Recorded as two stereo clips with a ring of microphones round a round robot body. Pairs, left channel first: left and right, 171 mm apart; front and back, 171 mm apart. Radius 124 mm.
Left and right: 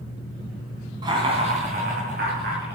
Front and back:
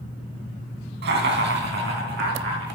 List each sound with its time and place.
1.0 s laughter: 160° right, 3 m; by 2.8 s 135° right, 5 m